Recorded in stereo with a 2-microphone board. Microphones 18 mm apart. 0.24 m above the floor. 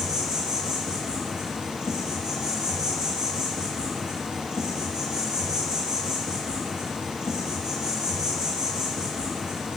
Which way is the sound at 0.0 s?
60° right (ahead or behind).